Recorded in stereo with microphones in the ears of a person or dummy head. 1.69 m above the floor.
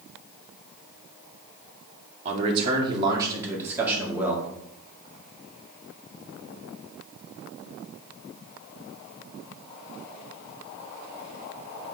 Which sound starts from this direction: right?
A man speaking, at 2.2 s.